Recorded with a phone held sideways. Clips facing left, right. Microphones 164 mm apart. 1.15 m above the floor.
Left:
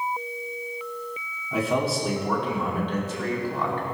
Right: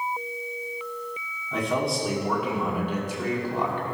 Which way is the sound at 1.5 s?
5° left (ahead or behind).